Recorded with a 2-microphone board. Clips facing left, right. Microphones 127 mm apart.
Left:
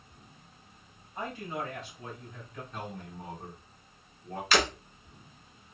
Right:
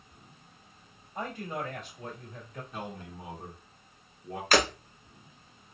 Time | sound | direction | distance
1.1 | a man speaking | 45° right (ahead or behind) | 1.8 m
2.7 | a man speaking | 10° right (ahead or behind) | 1.5 m
4.5 | breaking glass | 45° right (ahead or behind) | 1.1 m